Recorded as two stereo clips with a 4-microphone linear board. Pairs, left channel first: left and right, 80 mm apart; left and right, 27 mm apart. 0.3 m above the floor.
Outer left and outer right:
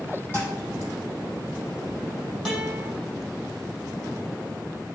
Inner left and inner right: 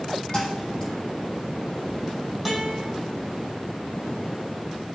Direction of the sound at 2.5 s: Centre (ahead or behind).